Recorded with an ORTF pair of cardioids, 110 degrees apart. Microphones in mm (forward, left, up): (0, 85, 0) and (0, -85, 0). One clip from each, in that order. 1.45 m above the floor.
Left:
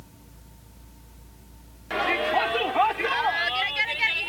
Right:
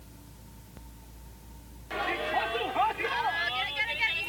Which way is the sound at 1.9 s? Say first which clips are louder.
Left 6 dB; 40° left.